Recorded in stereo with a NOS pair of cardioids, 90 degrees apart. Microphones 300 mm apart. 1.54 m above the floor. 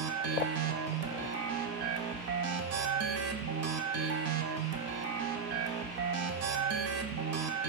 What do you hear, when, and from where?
0.0 s a machine running: 55° right, 0.7 m